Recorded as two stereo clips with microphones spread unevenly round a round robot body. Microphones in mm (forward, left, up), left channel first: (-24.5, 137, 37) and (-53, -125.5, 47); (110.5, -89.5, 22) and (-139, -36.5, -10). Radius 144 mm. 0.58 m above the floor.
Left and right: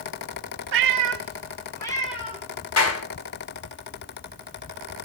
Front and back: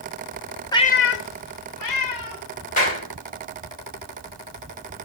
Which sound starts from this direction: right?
A cat meowing, at 0.7 s.